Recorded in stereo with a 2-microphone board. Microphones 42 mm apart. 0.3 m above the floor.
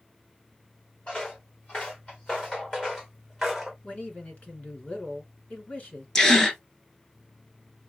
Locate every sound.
1.1 s footsteps: 25° left (ahead or behind), 3 m; by 3.7 s centre (ahead or behind), 1.3 m
3.8 s a man speaking: 35° left (ahead or behind), 3 m
6.2 s a gasp: 15° left (ahead or behind), 1.1 m